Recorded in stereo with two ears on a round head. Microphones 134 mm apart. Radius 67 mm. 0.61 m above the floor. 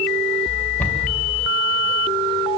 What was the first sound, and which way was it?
A cupboard door, 10° left (ahead or behind).